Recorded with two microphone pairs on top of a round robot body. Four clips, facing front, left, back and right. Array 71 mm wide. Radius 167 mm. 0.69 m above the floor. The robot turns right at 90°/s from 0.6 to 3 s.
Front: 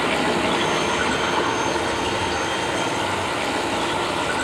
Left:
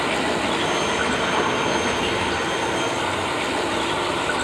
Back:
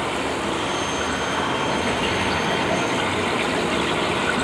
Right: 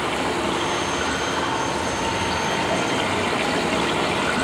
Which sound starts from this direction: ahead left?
Running water, at 0.0 s.